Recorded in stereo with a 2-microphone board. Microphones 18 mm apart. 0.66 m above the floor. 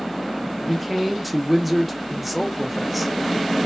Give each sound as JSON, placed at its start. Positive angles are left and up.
{"t": 0.7, "sound": "a man speaking", "side_deg": 0, "distance_m": 0.7}